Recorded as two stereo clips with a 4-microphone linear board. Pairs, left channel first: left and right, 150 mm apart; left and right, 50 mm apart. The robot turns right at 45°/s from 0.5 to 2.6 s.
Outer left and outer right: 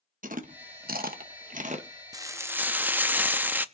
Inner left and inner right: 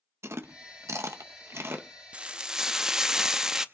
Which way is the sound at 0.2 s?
65° right (ahead or behind).